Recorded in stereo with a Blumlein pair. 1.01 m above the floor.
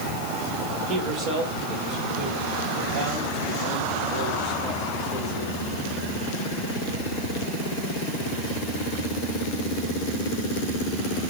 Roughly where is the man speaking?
Ahead right.